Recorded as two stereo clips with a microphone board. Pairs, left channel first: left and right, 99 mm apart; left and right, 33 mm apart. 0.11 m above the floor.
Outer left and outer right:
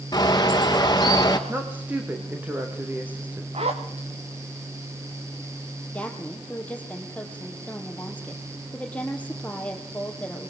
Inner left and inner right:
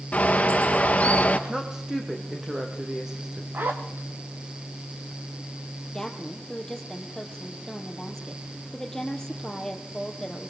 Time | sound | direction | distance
0.1 | a bird | 40° left (ahead or behind) | 2.5 m
1.5 | a woman speaking | 15° right (ahead or behind) | 6 m
3.5 | a zipper | 80° right | 4 m
5.9 | a woman speaking | 15° left (ahead or behind) | 4 m